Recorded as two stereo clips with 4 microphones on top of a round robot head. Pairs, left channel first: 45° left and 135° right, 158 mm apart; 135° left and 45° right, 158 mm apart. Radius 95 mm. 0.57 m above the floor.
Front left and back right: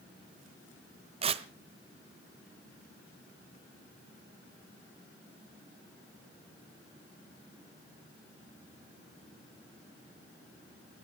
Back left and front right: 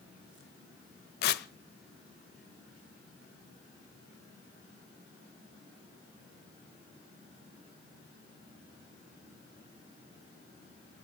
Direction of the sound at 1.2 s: 165° left.